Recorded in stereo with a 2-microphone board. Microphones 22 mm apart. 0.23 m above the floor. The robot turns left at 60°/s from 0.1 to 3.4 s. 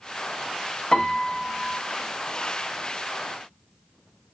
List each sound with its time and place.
0.9 s a piano: 135° left, 0.6 m; by 1.8 s 80° left, 0.6 m